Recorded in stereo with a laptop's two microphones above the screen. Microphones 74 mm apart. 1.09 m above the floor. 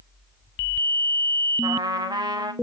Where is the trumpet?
75° right (ahead or behind), 2 m.